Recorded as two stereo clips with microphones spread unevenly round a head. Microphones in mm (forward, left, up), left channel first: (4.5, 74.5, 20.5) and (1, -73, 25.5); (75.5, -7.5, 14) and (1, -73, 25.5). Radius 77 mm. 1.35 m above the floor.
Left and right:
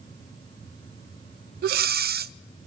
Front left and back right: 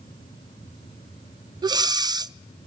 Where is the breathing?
90° right, 0.5 m.